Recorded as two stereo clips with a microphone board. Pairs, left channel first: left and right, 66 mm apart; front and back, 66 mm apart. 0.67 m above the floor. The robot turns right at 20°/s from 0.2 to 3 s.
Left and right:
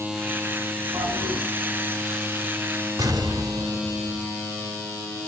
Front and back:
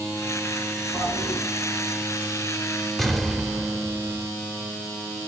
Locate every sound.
0.9 s a toilet flushing: 55° right, 4 m; by 1.4 s 45° right, 4 m
3.0 s an explosion: 90° right, 1.7 m